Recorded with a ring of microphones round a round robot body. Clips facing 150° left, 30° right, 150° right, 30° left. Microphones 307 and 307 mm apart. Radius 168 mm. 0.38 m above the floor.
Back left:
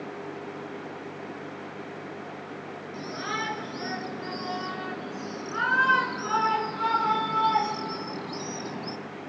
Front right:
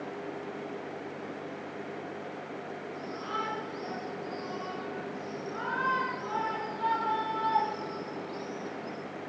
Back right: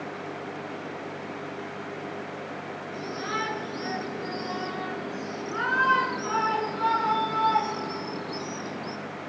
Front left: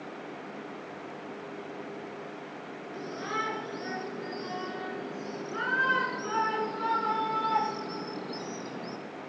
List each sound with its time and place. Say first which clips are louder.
2.9 s a shout: back left 5 dB, back right 3 dB; 140° left, 6.5 m; by 9.0 s 130° left, 3 m